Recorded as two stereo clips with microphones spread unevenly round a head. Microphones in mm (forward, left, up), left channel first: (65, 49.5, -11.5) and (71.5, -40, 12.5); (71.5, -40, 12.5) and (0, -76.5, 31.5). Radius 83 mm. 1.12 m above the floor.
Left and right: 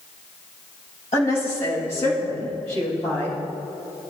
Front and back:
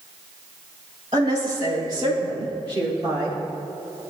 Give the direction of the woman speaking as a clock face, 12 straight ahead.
7 o'clock.